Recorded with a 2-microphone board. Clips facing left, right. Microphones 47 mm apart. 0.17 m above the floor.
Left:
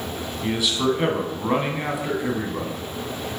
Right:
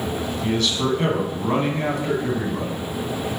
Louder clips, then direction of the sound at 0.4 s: Left 1 dB; 10° left (ahead or behind).